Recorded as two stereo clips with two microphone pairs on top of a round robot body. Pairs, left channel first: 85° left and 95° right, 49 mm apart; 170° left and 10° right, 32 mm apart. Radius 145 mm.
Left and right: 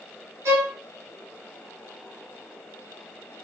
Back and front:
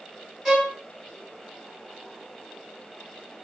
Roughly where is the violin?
Right.